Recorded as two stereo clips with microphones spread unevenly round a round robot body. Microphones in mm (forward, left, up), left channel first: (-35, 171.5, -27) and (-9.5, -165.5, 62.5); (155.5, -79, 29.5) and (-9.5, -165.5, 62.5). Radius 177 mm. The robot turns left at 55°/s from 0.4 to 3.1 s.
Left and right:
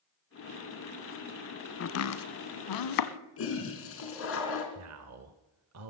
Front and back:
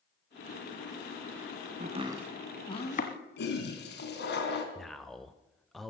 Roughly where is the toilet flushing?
Ahead left.